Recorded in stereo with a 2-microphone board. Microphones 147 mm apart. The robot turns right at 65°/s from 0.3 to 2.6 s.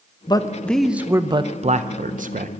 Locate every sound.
0.3 s a man speaking: 145° left, 0.6 m; by 2.5 s 70° right, 0.6 m